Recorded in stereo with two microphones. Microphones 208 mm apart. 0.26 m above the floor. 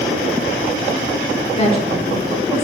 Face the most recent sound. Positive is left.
turn(degrees=15)  # may be behind; listen again after turning